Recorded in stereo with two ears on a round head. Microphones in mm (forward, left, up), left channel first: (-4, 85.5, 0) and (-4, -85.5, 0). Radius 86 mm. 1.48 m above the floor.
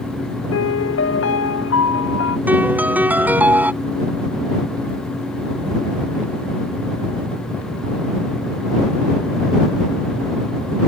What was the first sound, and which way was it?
A piano, 70° left (ahead or behind).